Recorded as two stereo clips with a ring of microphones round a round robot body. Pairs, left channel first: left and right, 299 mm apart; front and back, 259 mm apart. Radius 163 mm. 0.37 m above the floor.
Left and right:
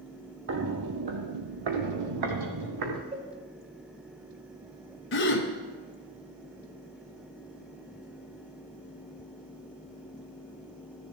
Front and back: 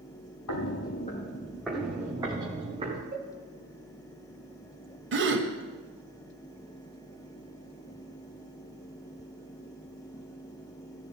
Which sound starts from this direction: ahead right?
Footsteps, at 0.5 s.